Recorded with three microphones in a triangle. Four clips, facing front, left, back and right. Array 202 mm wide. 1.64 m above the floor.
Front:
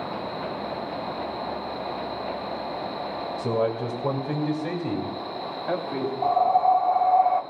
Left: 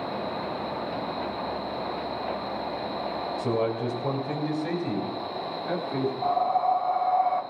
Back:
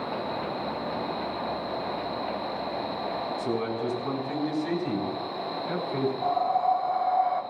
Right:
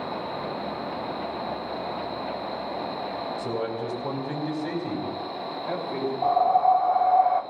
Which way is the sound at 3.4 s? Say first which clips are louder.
Left 5 dB, front 7 dB; 20° left.